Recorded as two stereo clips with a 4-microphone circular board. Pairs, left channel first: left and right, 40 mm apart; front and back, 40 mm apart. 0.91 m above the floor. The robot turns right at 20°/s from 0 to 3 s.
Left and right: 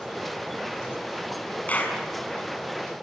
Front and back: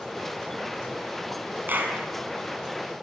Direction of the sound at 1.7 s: 140° left.